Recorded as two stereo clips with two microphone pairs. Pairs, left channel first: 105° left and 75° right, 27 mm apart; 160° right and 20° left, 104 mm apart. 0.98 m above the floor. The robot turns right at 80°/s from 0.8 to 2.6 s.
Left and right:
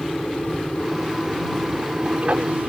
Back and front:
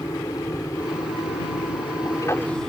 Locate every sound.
0.0 s an aircraft: 145° left; by 2.7 s 80° right